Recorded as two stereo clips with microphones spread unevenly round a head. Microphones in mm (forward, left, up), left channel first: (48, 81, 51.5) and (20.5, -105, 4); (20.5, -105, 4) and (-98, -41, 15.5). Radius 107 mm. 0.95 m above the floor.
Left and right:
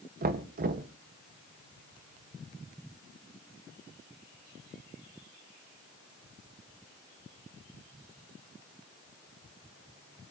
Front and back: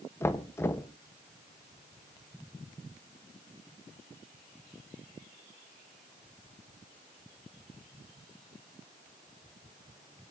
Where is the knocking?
95° right, 0.9 m.